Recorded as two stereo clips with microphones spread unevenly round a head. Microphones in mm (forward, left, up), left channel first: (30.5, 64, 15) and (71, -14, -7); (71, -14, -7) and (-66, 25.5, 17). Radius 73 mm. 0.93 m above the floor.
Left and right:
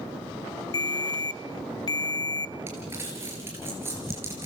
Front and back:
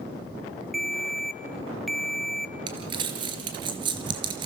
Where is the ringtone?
70° left, 0.8 m.